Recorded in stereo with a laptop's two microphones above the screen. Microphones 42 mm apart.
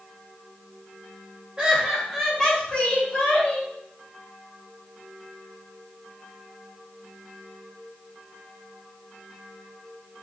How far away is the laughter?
About 0.8 m.